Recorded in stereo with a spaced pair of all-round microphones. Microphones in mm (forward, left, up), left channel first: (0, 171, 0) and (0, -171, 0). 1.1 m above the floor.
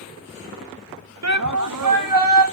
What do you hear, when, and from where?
1.2 s a shout: 50° right (ahead or behind), 1.1 m; by 2.5 s 80° right, 2 m